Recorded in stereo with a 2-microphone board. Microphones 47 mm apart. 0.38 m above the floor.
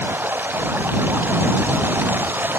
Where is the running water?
45° right (ahead or behind).